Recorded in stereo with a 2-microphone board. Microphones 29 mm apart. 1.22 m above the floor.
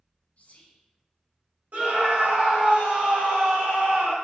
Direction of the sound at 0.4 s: 50° left (ahead or behind).